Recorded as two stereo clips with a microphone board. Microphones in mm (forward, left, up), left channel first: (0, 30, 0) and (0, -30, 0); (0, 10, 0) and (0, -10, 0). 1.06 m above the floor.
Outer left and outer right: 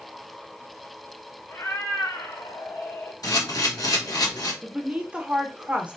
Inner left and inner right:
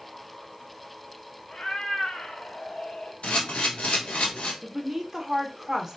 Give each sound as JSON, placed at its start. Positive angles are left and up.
{"t": 1.5, "sound": "a cat meowing", "side_deg": 50, "distance_m": 0.9}
{"t": 3.2, "sound": "a camera shutter", "side_deg": 80, "distance_m": 1.2}
{"t": 4.6, "sound": "a woman speaking", "side_deg": -20, "distance_m": 0.7}